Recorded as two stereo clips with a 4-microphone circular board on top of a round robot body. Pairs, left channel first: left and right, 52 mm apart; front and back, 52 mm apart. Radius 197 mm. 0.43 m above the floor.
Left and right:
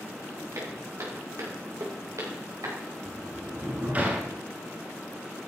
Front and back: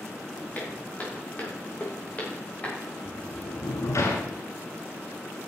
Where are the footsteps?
65° right, 6.5 m; by 2.8 s 70° right, 7.5 m.